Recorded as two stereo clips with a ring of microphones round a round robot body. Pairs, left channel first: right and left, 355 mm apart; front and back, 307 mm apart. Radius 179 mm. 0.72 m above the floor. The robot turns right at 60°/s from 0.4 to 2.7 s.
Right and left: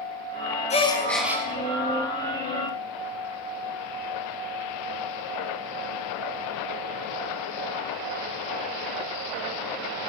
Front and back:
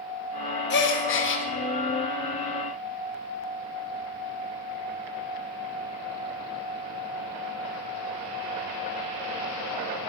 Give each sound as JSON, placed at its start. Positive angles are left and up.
{"t": 0.7, "sound": "a gasp", "azimuth_deg": -30, "distance_m": 1.3}